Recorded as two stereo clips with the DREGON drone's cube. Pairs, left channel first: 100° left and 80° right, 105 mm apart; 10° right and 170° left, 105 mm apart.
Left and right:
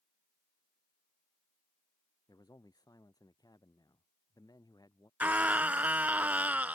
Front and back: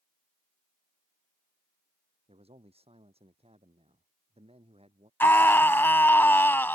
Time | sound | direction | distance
2.3 | a man speaking | 150° left | ?
5.2 | a scream | 35° right | ?